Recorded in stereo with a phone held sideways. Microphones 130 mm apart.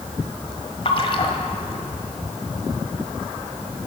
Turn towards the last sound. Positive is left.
turn(degrees=45)  # may be behind; listen again after turning